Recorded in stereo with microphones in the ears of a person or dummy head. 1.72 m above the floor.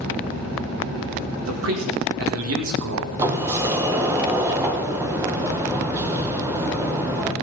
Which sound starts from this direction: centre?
A sliding door, at 3.2 s.